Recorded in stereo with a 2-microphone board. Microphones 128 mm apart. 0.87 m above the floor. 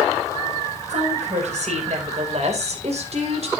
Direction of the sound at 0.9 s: 60° right (ahead or behind).